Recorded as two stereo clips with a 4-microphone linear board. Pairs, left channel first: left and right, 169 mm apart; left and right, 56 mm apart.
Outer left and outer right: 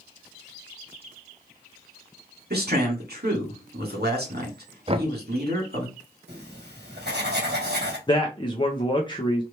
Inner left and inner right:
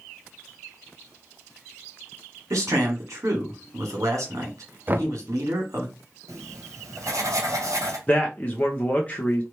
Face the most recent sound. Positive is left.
turn(degrees=30)  # may be behind; listen again after turning